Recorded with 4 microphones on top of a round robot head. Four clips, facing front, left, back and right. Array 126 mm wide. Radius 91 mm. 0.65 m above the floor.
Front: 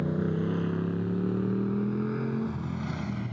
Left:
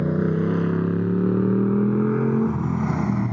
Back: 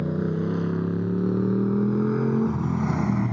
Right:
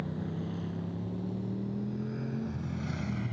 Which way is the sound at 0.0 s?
100° left.